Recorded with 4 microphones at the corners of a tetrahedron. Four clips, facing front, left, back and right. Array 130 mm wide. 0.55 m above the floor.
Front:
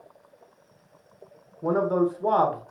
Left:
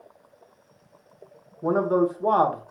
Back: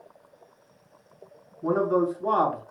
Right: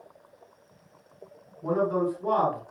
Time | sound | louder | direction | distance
1.6 | a man speaking | left 4 dB, even | 50° left | 3 m